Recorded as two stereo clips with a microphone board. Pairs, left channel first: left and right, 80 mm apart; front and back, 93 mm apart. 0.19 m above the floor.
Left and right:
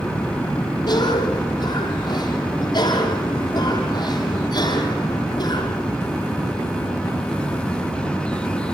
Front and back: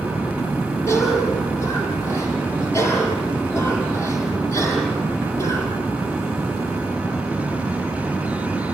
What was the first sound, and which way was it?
A cough, 60° left.